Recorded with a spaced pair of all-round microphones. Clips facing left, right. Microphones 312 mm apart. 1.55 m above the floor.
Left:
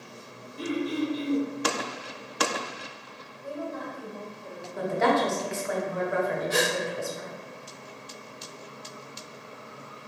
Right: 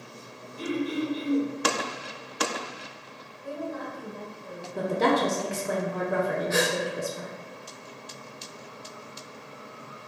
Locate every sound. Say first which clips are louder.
0.6 s throat clearing: even; 65° left (ahead or behind), 1.8 m
3.4 s a woman speaking: right 1 dB; 35° left (ahead or behind), 1.3 m
4.8 s a woman speaking: right 1 dB; 45° right (ahead or behind), 0.6 m
6.5 s a gasp: right 1 dB; 45° left (ahead or behind), 0.6 m